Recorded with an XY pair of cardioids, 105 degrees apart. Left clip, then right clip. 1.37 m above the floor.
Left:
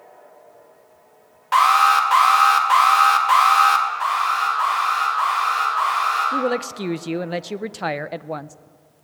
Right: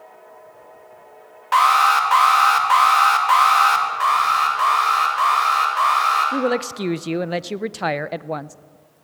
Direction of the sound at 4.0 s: 40° right.